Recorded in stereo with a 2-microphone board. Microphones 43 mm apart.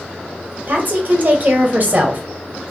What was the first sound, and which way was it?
A woman speaking, 45° right (ahead or behind).